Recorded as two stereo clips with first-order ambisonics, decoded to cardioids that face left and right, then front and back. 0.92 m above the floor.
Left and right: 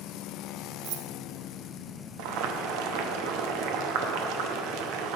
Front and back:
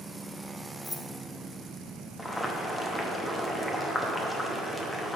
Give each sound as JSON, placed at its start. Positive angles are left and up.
{"t": 0.8, "sound": "keys jangling", "azimuth_deg": -80, "distance_m": 0.5}
{"t": 2.2, "sound": "boiling", "azimuth_deg": -85, "distance_m": 0.8}